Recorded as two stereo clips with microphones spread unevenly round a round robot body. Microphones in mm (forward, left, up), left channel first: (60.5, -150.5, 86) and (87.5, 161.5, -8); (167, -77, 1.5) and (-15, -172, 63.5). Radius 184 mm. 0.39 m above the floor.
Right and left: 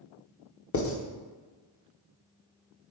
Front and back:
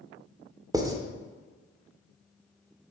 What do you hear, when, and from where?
0.7 s writing: 65° right, 1.4 m